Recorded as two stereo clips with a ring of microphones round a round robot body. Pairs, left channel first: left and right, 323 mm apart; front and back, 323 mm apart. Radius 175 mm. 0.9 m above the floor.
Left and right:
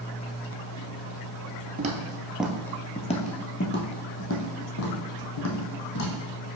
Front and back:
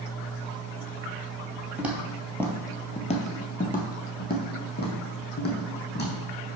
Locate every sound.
1.8 s footsteps: 100° right, 0.9 m; by 6.5 s 55° left, 2.5 m